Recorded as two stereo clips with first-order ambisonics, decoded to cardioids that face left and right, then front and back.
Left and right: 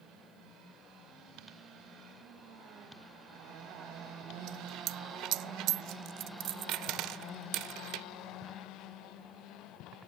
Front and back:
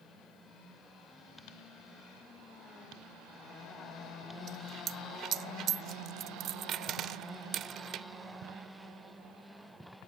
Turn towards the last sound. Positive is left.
turn(degrees=-125)